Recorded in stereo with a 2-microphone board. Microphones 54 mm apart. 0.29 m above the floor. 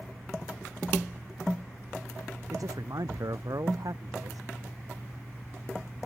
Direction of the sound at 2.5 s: 80° right.